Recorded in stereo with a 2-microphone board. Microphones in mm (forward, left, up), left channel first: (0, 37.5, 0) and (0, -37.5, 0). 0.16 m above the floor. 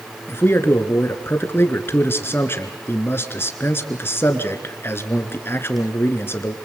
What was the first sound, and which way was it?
A man speaking, 35° left (ahead or behind).